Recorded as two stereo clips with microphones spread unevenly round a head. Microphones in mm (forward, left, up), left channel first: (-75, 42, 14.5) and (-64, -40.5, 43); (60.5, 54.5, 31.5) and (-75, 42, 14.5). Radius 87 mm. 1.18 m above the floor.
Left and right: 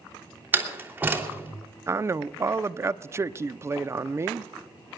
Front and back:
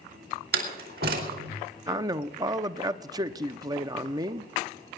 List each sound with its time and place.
0.5 s a door slam: 150° right, 3 m
1.9 s a man speaking: 150° right, 0.7 m